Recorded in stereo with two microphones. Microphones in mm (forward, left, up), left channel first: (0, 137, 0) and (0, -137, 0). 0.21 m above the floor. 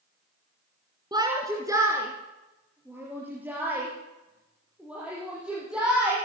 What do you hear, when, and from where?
1.1 s a shout: 15° right (ahead or behind), 2.5 m; by 6.2 s 5° right (ahead or behind), 7.5 m